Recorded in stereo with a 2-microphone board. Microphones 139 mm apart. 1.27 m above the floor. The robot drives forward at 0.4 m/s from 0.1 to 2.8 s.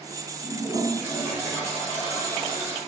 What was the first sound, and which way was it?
A toilet flushing, 25° right (ahead or behind).